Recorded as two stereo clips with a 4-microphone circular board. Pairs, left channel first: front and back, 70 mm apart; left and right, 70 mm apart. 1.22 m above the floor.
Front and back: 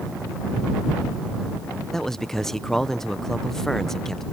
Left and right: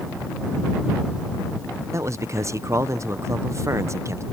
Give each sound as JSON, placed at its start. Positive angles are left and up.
{"t": 1.9, "sound": "a man speaking", "azimuth_deg": -80}